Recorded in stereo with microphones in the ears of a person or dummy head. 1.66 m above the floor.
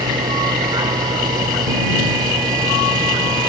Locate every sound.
0.0 s a vehicle: 25° right (ahead or behind)